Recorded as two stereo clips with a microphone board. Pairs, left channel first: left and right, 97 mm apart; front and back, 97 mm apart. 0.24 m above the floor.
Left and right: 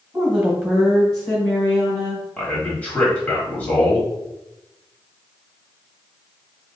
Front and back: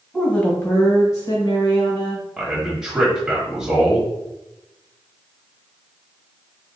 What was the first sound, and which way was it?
A woman speaking, 75° right.